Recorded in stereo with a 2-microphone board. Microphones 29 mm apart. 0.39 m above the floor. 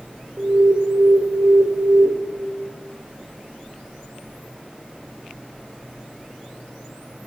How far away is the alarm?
About 1.0 m.